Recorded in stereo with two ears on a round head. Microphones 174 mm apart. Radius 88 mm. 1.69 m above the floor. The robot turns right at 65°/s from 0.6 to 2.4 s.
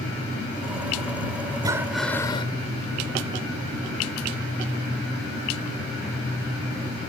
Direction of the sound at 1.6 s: 20° right.